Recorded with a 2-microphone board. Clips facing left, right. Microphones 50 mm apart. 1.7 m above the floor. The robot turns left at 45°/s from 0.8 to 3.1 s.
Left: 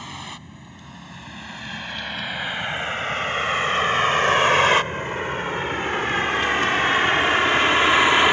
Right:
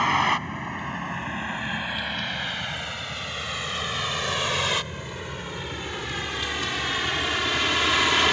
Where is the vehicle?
60° right (ahead or behind); by 8.3 s 25° left (ahead or behind).